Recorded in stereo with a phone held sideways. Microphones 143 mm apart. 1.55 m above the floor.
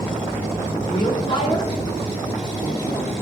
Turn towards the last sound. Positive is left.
turn(degrees=35)  # may be behind; listen again after turning